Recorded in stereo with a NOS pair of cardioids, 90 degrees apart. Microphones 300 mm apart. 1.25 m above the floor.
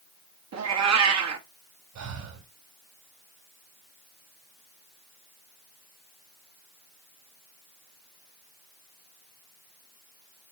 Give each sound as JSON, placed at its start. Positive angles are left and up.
{"t": 0.5, "sound": "a cat meowing", "azimuth_deg": -65, "distance_m": 1.5}
{"t": 1.9, "sound": "breathing", "azimuth_deg": -65, "distance_m": 3.5}